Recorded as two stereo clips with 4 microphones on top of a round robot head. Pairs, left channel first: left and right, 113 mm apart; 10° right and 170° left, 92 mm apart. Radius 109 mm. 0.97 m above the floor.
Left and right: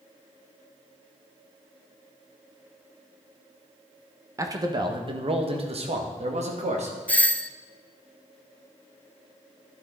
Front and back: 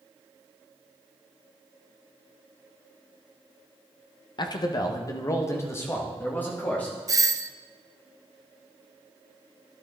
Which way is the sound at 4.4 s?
30° right.